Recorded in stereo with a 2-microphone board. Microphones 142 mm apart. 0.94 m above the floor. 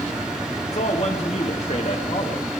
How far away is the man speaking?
About 1.8 m.